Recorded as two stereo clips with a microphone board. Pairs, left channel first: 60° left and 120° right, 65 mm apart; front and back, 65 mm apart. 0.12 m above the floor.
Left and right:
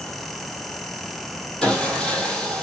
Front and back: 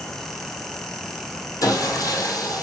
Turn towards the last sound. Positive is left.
turn(degrees=-15)